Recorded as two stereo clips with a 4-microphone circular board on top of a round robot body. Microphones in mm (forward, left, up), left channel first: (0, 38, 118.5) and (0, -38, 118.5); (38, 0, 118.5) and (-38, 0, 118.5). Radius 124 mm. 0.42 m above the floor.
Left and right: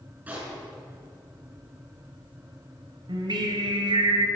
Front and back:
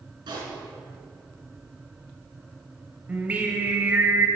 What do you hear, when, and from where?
0.3 s a pop: 160° right, 5.5 m
3.1 s singing: 110° right, 1.7 m